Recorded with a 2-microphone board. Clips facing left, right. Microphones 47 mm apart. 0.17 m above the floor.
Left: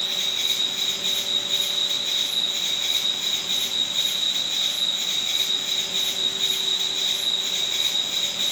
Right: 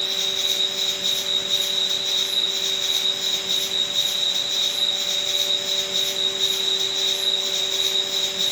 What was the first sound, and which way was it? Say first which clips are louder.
An insect: right 1 dB; 20° left (ahead or behind).